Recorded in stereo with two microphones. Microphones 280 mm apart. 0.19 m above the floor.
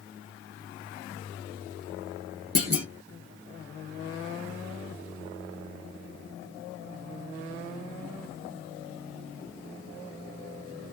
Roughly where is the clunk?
Right.